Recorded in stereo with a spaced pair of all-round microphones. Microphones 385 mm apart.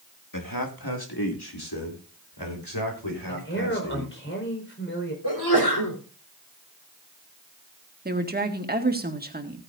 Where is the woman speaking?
25° right (ahead or behind), 1.8 m.